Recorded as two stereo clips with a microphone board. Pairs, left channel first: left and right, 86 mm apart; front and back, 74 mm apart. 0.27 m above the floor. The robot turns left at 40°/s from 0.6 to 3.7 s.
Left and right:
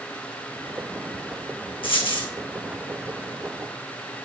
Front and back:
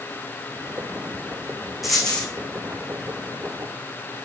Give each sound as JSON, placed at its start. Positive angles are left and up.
{"t": 1.8, "sound": "a dropped coin", "azimuth_deg": 90, "distance_m": 1.9}